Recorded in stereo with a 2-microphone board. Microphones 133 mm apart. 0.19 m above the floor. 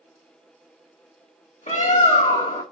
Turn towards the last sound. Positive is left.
turn(degrees=75)  # may be behind; listen again after turning